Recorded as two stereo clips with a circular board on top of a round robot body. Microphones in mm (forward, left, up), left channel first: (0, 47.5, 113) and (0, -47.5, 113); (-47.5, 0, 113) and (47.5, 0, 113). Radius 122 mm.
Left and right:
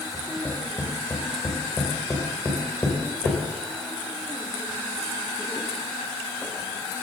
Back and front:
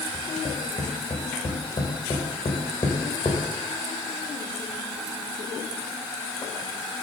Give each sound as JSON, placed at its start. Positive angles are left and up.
{"t": 0.1, "sound": "tapping", "azimuth_deg": 155, "distance_m": 2.5}